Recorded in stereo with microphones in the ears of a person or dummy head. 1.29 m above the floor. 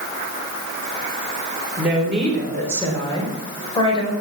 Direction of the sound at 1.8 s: 5° right (ahead or behind).